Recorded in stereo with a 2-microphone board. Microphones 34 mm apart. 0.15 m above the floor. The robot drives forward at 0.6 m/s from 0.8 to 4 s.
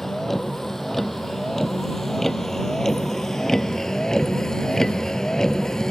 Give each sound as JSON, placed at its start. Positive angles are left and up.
{"t": 0.0, "sound": "a vehicle", "side_deg": 10}